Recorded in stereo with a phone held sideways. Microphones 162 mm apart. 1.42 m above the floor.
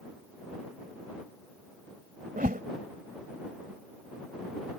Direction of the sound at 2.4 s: 55° right (ahead or behind).